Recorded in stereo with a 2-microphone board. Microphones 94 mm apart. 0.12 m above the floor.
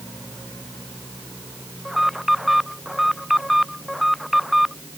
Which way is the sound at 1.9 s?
Centre (ahead or behind).